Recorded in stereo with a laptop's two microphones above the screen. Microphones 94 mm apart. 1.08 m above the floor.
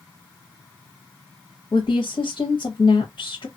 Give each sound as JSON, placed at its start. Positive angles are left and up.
{"t": 1.7, "sound": "a woman speaking", "side_deg": 70, "distance_m": 1.0}